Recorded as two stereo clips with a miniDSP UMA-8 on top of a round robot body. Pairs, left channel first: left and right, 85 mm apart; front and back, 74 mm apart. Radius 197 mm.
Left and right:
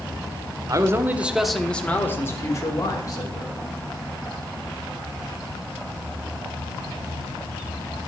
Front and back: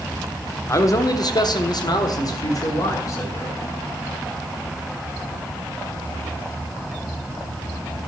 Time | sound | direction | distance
0.7 | a man speaking | 45° right | 1.7 m